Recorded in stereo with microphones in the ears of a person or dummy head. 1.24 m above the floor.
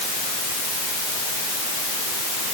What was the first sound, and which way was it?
Only background noise.